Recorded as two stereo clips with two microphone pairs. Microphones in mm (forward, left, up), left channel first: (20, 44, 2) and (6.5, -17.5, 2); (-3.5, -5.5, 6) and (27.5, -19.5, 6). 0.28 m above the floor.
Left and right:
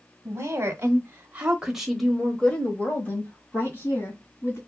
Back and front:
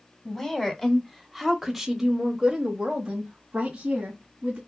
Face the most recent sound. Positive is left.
turn(degrees=35)